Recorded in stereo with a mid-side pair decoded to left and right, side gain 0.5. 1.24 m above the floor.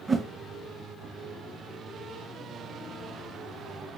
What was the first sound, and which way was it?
A whoosh, 25° right.